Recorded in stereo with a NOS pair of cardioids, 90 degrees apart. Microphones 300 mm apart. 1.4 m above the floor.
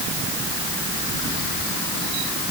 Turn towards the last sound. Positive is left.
No sound to turn to.